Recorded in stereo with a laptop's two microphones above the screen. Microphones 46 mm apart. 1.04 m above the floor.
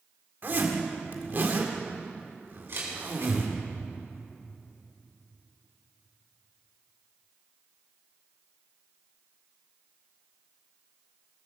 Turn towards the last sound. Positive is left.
turn(degrees=-60)  # may be behind; listen again after turning